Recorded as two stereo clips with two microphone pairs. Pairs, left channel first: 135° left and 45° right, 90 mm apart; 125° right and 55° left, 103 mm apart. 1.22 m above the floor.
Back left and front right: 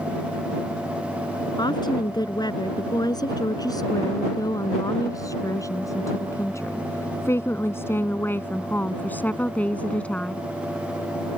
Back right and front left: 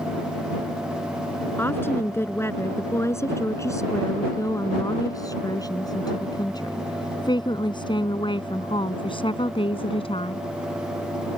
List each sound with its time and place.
1.6 s a woman speaking: 170° left; by 10.4 s 150° right